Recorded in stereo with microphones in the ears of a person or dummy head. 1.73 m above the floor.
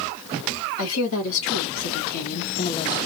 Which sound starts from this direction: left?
A woman speaking, at 0.8 s.